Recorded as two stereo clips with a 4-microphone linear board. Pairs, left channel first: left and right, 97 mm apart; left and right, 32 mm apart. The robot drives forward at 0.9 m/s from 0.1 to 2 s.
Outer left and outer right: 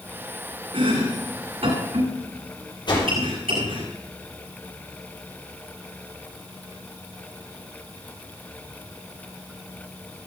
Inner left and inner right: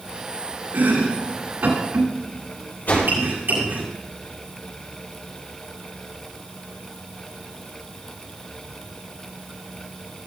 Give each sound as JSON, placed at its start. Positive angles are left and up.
{"t": 0.7, "sound": "chopping", "side_deg": -80, "distance_m": 8.0}
{"t": 2.9, "sound": "a whoosh", "side_deg": 55, "distance_m": 7.0}